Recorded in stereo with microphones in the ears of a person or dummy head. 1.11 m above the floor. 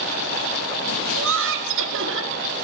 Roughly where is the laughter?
Right.